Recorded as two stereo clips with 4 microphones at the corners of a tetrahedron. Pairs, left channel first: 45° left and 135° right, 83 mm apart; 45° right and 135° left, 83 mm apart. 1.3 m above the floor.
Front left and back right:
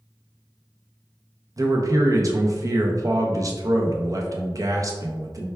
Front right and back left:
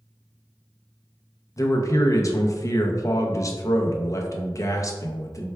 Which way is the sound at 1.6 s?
90° right.